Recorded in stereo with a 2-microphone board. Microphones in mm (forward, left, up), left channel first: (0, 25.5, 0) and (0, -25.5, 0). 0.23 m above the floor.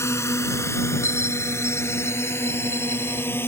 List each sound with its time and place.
0.0 s a drone: 65° left (ahead or behind); by 3.5 s 45° left (ahead or behind)
1.0 s a bell: 60° left (ahead or behind)